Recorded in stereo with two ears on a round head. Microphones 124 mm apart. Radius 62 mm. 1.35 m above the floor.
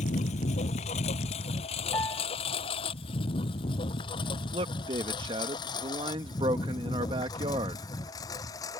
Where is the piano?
20° left (ahead or behind).